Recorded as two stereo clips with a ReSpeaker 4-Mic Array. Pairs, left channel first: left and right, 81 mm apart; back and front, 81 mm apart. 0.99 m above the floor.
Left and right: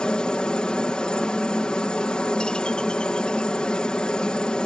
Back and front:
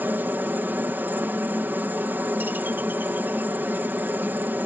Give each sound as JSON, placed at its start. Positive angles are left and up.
{"t": 0.0, "sound": "a helicopter", "azimuth_deg": 25}